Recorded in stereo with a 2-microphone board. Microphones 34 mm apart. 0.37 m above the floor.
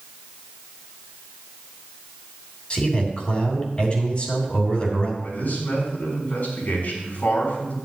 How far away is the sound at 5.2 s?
About 4 m.